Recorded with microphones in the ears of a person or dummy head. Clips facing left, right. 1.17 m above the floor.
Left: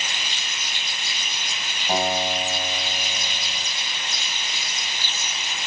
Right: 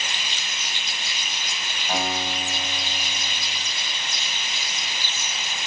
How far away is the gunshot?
No gunshot in this recording.